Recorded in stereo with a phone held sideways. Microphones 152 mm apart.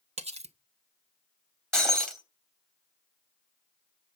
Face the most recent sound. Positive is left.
turn(degrees=5)  # may be behind; listen again after turning